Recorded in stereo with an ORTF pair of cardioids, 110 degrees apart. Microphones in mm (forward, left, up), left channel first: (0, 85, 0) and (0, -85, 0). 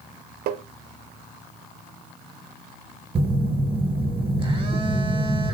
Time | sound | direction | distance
0.5 | tapping | 65° right | 0.5 m
3.1 | a phone buzzing | 35° right | 0.8 m